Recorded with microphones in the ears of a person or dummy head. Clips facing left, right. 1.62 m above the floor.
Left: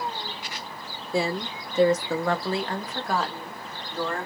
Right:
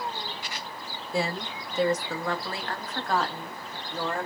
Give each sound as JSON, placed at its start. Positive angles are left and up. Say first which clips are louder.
{"t": 1.1, "sound": "a woman speaking", "louder": "left 3 dB", "side_deg": 70, "distance_m": 0.7}